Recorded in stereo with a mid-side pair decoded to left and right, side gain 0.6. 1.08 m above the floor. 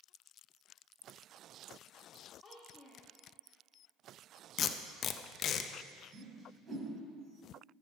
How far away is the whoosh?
About 4 m.